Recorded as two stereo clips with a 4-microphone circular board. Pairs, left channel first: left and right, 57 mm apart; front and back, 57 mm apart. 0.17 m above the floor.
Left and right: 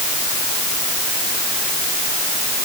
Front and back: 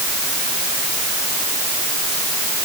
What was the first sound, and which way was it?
Only background noise.